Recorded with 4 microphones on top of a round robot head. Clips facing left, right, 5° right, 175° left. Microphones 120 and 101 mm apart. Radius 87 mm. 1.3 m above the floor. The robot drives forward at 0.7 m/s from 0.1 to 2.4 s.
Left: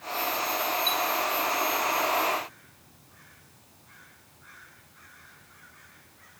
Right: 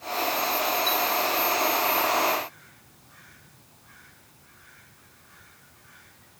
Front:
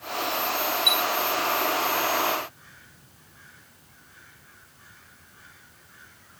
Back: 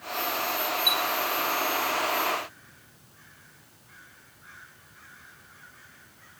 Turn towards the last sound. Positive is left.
turn(degrees=160)